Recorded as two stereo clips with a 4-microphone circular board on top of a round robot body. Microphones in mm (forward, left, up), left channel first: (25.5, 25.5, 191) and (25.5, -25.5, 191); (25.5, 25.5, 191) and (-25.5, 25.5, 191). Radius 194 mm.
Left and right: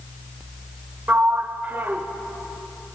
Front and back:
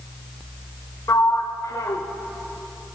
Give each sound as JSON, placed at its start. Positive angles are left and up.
{"t": 1.1, "sound": "a sliding door", "azimuth_deg": -30, "distance_m": 0.9}